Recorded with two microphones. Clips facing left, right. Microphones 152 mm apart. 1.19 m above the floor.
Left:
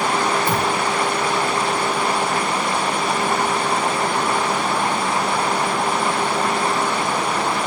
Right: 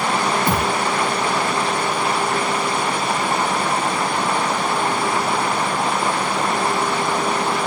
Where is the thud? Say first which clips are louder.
Even; 45° right (ahead or behind), 1.0 m.